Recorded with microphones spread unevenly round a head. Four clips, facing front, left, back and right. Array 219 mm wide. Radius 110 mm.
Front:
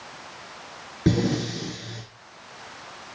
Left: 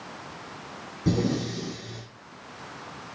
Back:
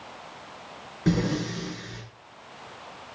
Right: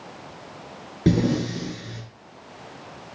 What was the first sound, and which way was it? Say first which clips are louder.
Breathing: right 5 dB, front 3 dB; 60° right.